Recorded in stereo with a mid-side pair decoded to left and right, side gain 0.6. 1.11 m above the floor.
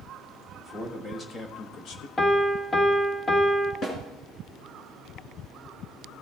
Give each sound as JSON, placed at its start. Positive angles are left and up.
{"t": 0.6, "sound": "a man speaking", "azimuth_deg": 10, "distance_m": 1.7}
{"t": 2.2, "sound": "a piano", "azimuth_deg": 15, "distance_m": 1.4}
{"t": 3.8, "sound": "a snare drum", "azimuth_deg": 40, "distance_m": 3.0}